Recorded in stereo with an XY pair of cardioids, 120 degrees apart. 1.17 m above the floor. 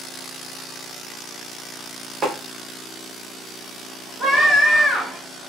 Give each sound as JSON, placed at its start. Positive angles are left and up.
{"t": 2.2, "sound": "tapping", "azimuth_deg": -25, "distance_m": 1.1}
{"t": 4.2, "sound": "a scream", "azimuth_deg": -55, "distance_m": 1.7}